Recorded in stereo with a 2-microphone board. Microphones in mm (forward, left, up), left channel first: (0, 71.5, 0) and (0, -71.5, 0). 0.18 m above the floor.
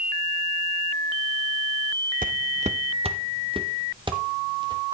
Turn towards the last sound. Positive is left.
turn(degrees=-30)  # may be behind; listen again after turning